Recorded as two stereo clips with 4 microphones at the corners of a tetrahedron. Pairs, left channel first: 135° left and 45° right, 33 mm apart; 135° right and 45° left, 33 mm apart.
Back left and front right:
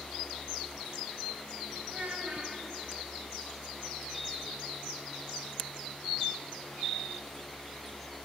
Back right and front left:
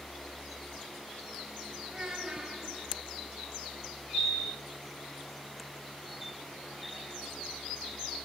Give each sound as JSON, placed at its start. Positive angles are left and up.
{"t": 1.9, "sound": "a child speaking", "azimuth_deg": -5, "distance_m": 1.1}